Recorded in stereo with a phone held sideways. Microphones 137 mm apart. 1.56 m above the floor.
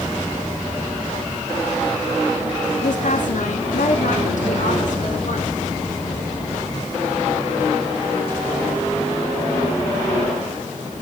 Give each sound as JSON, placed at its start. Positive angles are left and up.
{"t": 2.8, "sound": "a woman speaking", "side_deg": 70, "distance_m": 2.0}